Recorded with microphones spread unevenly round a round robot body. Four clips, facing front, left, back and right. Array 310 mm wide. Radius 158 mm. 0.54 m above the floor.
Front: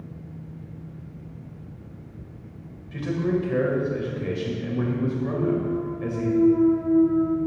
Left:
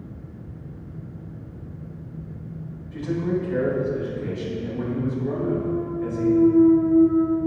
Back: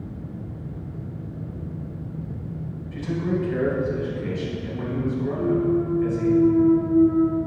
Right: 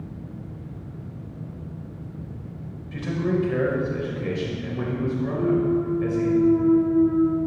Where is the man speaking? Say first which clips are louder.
Even, front 1 dB; 50° right, 2.5 m.